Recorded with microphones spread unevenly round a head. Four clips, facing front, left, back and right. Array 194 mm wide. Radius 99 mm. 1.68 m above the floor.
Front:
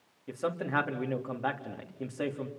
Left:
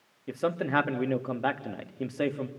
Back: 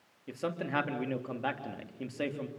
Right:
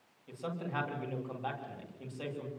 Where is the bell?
I don't hear a bell.